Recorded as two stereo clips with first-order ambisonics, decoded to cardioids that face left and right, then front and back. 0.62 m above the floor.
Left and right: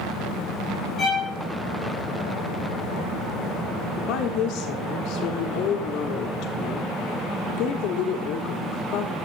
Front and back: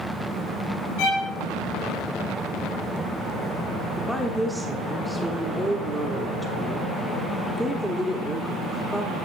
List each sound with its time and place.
1.0 s a violin: straight ahead, 6 m
4.0 s a woman speaking: 85° left, 0.9 m